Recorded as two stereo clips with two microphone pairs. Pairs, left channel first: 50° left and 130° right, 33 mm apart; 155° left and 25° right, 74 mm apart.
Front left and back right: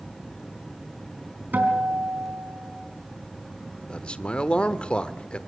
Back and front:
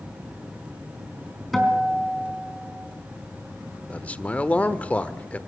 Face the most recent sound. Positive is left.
turn(degrees=95)